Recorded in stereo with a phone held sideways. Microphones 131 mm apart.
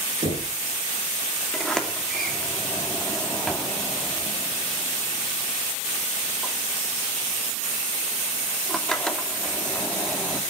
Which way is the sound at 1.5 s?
5° left (ahead or behind).